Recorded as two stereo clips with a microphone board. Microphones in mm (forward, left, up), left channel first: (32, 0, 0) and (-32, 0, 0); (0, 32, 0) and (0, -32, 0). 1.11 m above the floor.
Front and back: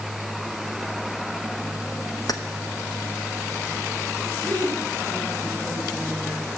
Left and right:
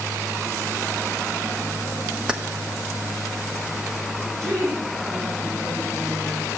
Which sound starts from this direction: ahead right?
A woman speaking, at 4.4 s.